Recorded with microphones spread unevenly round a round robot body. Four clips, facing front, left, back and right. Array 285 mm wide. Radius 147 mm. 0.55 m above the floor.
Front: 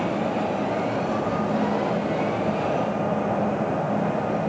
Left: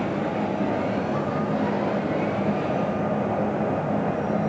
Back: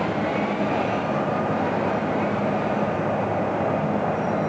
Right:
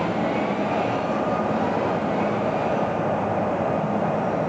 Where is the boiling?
No boiling in this recording.